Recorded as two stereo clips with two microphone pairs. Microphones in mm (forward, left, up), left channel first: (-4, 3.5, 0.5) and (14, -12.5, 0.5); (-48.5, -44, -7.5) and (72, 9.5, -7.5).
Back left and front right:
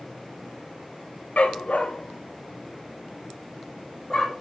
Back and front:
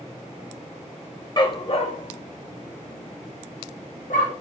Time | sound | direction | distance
1.4 | a dog barking | 145° left | 0.8 m